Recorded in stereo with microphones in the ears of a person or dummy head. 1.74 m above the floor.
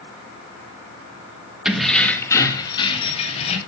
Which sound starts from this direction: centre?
Keys jangling, at 1.6 s.